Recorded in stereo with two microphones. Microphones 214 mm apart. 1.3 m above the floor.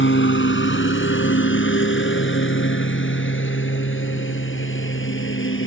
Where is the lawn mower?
65° left (ahead or behind); by 5.7 s 70° left (ahead or behind).